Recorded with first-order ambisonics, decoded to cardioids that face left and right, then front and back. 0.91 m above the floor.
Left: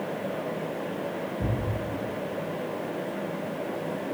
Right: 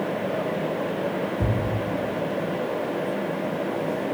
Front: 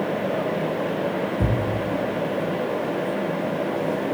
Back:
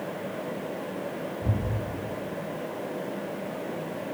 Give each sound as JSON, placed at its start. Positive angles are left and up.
{"t": 1.4, "sound": "a thud", "azimuth_deg": -20, "distance_m": 4.0}